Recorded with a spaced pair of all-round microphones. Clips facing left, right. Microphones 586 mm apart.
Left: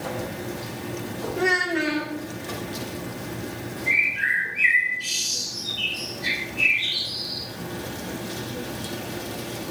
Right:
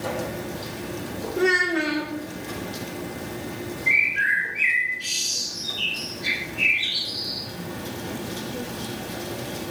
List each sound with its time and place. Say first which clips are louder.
1.4 s a child speaking: right 3 dB; 25° left (ahead or behind), 1.3 m
3.9 s a bird: even; 5° left (ahead or behind), 1.9 m